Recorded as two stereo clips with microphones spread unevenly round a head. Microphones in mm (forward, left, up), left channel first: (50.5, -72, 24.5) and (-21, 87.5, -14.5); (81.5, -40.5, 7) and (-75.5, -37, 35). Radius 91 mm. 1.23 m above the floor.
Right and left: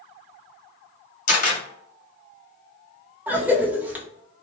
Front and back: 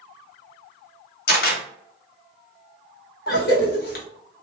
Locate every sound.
1.3 s a camera shutter: 25° right, 1.0 m
3.3 s a cough: 35° left, 0.8 m